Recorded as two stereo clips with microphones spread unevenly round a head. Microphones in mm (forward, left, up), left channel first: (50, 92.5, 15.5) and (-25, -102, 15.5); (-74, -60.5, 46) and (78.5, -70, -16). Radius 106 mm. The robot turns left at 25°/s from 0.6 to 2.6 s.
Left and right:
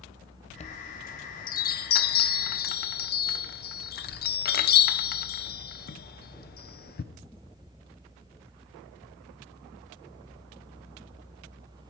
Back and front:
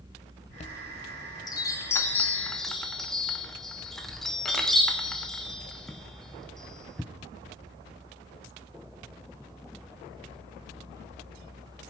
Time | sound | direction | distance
0.5 | a chime | 115° left | 0.8 m